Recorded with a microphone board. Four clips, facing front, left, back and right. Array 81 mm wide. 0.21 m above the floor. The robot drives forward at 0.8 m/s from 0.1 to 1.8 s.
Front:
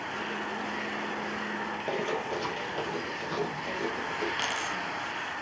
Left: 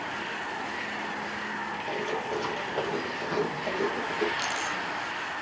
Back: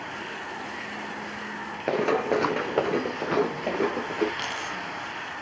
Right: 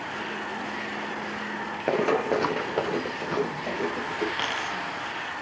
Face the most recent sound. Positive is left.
turn(degrees=-85)